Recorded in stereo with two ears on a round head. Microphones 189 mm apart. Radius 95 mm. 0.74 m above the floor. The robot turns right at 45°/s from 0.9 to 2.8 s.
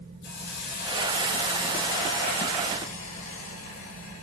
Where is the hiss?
55° left, 3.5 m; by 4.2 s 140° left, 3.5 m.